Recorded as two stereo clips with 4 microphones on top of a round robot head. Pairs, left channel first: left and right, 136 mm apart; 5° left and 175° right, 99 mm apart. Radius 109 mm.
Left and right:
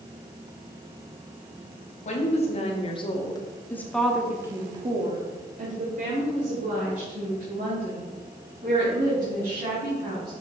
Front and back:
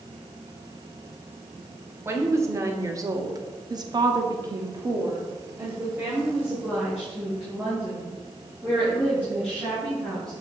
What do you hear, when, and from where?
2.0 s a woman speaking: 120° left, 1.8 m; by 10.3 s 85° right, 4.5 m